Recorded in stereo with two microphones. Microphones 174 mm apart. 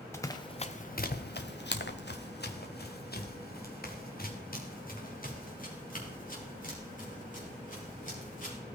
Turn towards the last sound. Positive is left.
turn(degrees=50)  # may be behind; listen again after turning